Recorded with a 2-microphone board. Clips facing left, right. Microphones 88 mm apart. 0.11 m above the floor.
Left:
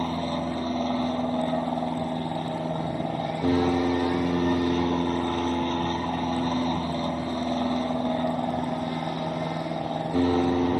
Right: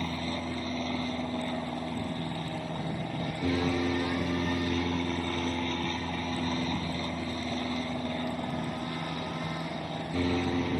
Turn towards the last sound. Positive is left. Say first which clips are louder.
# left 6 dB
turn(degrees=40)  # may be behind; listen again after turning